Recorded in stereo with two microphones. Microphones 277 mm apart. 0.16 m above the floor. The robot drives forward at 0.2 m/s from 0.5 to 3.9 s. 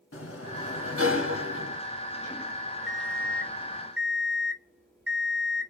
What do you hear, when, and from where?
0.1 s a sliding door: 55° left (ahead or behind), 0.8 m; by 1.8 s 45° left (ahead or behind), 0.8 m
2.9 s an alarm clock: 45° right (ahead or behind), 1.2 m